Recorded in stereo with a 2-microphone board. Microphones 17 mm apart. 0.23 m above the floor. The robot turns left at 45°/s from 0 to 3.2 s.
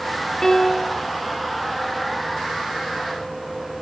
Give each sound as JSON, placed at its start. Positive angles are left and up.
{"t": 0.4, "sound": "a piano", "side_deg": 25, "distance_m": 1.3}